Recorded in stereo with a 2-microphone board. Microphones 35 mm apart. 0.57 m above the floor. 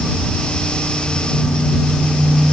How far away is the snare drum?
No snare drum in this recording.